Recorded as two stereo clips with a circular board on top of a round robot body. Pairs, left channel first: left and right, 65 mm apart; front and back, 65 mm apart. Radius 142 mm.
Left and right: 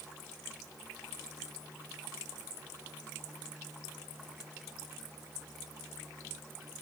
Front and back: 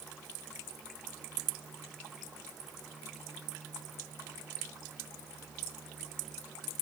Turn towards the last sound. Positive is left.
No sound to turn to.